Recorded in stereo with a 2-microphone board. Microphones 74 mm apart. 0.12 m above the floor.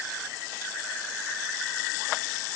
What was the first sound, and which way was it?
Only background noise.